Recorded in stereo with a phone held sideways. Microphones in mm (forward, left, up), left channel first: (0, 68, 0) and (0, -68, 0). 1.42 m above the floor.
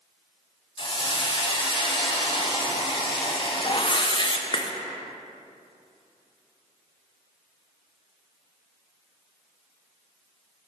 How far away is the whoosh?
About 0.5 m.